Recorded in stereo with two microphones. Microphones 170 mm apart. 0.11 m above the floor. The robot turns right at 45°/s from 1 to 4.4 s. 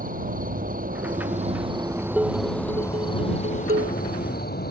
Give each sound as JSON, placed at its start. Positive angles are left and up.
{"t": 0.0, "sound": "an insect", "azimuth_deg": -65}
{"t": 2.2, "sound": "dishes clattering", "azimuth_deg": -175}